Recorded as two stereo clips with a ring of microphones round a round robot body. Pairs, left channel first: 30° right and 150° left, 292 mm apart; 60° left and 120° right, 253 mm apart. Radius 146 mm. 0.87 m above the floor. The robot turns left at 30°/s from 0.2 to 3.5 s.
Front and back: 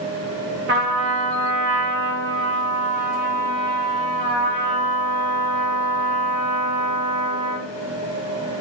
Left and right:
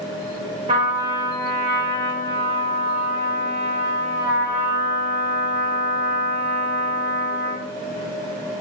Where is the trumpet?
Straight behind, 0.6 m; by 7.7 s 95° left, 0.6 m.